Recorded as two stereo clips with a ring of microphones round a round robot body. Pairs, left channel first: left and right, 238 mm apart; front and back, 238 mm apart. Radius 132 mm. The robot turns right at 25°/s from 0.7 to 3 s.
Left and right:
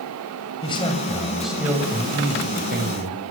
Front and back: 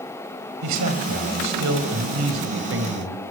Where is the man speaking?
160° left, 6 m; by 3.2 s 140° right, 6 m.